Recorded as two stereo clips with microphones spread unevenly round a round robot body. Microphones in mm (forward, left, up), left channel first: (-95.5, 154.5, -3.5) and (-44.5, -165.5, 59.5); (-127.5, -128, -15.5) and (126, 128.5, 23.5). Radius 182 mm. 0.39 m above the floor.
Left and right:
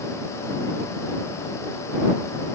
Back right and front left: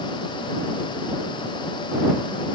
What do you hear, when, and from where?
Only background noise.